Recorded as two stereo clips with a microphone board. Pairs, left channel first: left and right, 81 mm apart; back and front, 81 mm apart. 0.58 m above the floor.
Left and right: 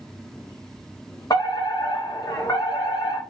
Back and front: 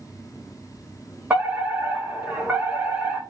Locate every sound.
1.3 s a fire alarm: 70° left, 4.5 m